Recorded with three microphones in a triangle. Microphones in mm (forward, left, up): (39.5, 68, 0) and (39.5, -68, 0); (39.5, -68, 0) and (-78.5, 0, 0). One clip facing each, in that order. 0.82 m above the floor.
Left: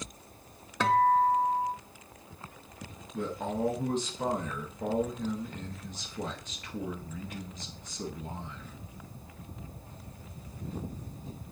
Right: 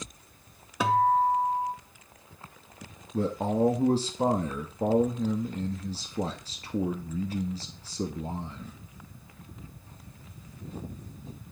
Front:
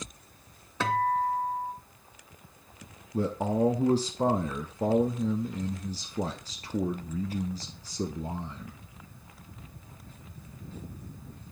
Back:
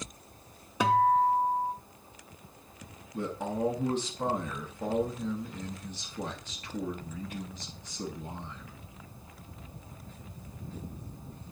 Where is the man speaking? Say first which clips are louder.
Right 6 dB, front 6 dB; 60° right, 0.6 m.